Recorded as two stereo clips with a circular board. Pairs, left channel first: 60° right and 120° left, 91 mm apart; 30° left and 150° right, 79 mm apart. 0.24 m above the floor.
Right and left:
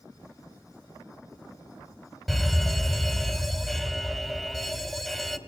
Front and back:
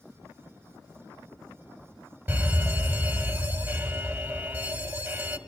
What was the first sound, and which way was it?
A fire alarm, 150° right.